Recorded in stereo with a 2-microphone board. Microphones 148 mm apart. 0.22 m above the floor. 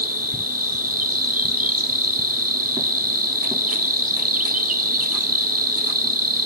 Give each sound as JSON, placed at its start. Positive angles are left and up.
{"t": 0.0, "sound": "an insect", "side_deg": -70, "distance_m": 1.0}